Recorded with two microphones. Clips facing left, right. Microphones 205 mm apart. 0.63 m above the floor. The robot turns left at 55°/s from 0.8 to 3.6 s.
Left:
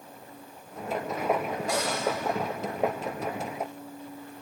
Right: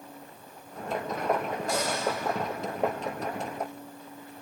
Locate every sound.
1.7 s a cupboard door: 80° left, 3.5 m; by 2.1 s 75° left (ahead or behind), 3.5 m